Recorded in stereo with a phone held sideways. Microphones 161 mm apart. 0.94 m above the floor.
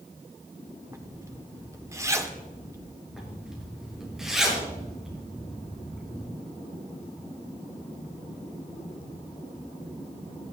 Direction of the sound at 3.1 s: 5° right (ahead or behind).